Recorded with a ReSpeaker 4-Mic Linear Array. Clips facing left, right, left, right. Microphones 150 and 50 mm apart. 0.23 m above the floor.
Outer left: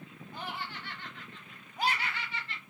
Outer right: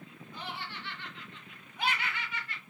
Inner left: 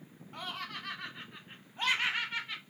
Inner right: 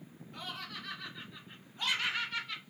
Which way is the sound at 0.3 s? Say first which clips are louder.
Outer left 2 dB, inner left 3 dB; 50° left (ahead or behind).